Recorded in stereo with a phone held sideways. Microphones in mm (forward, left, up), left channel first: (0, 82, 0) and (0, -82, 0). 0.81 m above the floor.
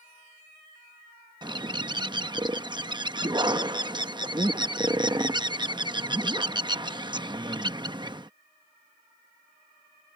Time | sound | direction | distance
1.4 | a bird | 25° right (ahead or behind) | ?